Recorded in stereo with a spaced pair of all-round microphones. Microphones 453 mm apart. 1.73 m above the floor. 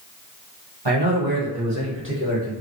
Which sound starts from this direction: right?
A man speaking, at 0.8 s.